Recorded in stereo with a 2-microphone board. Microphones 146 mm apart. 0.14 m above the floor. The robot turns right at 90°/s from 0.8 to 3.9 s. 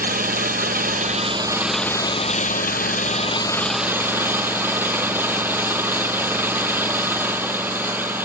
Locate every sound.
0.0 s an engine running: 85° right, 1.0 m; by 8.2 s 165° right, 1.0 m